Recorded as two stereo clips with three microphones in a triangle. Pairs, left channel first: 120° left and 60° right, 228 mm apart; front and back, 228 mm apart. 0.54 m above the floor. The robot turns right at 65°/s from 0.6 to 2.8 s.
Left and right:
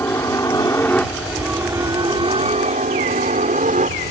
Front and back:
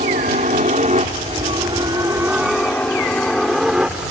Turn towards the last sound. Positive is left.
turn(degrees=-100)